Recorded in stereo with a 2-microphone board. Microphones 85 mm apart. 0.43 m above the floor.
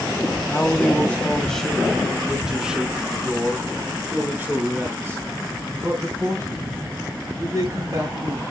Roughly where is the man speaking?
Left.